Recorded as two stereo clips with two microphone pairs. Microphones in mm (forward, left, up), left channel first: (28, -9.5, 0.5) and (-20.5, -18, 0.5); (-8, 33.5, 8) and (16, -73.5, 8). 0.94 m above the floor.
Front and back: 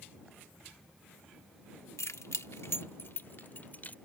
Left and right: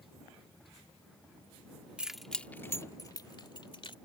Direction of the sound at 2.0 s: Straight ahead.